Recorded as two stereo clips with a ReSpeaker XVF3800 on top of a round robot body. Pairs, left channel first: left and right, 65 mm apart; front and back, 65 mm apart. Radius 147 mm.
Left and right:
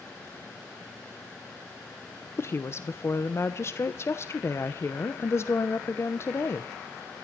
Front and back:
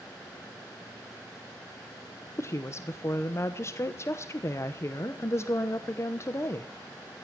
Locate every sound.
2.4 s a woman speaking: 45° left, 1.1 m